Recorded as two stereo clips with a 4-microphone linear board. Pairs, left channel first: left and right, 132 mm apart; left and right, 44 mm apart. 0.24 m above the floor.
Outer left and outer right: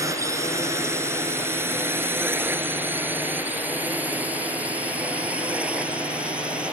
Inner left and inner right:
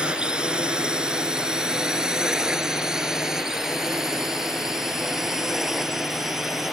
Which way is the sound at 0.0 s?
25° right (ahead or behind).